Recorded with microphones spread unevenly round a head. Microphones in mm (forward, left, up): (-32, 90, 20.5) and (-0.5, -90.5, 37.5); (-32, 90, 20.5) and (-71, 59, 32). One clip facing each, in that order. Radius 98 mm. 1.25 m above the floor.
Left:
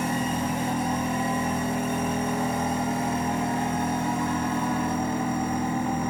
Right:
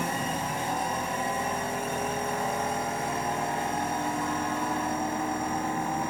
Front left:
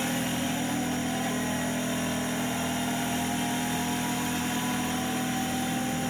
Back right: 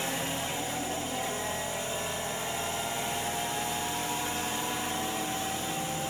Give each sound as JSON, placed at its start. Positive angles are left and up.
{"t": 0.0, "sound": "a machine running", "azimuth_deg": 80}